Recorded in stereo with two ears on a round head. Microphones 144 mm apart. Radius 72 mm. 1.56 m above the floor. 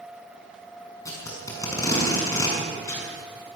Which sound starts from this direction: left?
Tape being pulled, at 1.1 s.